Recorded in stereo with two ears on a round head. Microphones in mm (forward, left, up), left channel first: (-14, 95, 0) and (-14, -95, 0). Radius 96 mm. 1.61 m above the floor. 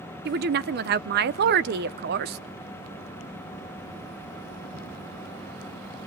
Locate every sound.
0.2 s a woman speaking: 50° right (ahead or behind), 0.7 m